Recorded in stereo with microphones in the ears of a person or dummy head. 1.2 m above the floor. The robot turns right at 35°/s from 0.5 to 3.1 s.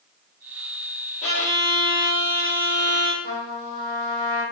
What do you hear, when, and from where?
1.2 s a violin: 45° left, 0.7 m; by 3.1 s 110° left, 0.7 m
3.2 s a trumpet: 35° right (ahead or behind), 1.1 m